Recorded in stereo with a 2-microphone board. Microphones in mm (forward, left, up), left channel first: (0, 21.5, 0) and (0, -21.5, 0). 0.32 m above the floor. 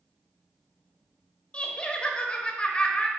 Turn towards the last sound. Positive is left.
turn(degrees=25)  # may be behind; listen again after turning